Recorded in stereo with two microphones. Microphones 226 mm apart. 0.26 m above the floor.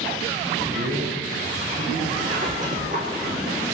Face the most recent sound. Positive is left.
turn(degrees=-35)  # may be behind; listen again after turning